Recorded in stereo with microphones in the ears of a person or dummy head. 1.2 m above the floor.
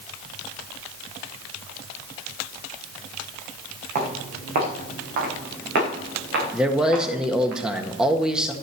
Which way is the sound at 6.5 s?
5° right (ahead or behind).